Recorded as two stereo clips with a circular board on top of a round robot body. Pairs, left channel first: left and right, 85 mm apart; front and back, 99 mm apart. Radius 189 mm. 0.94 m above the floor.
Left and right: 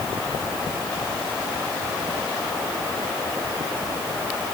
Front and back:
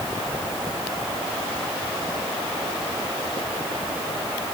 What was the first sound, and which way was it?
Only background noise.